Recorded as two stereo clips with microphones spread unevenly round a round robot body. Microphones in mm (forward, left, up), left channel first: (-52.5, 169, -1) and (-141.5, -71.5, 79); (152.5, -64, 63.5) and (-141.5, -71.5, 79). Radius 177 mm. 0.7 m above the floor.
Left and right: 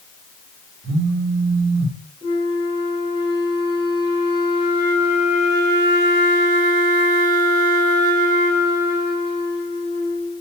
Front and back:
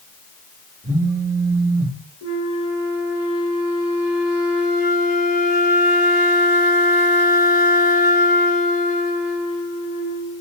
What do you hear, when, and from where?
0.8 s a phone buzzing: 55° right, 1.6 m
2.2 s a flute: 20° right, 2.0 m